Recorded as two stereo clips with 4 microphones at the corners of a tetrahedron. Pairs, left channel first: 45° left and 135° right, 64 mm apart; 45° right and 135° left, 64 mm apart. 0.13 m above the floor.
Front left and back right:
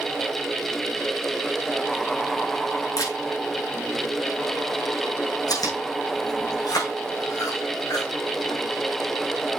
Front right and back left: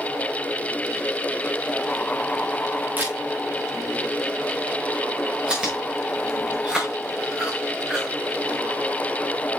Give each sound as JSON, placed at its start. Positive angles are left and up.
{"t": 3.0, "sound": "a camera shutter", "azimuth_deg": 75, "distance_m": 5.0}
{"t": 5.5, "sound": "chewing", "azimuth_deg": 60, "distance_m": 5.5}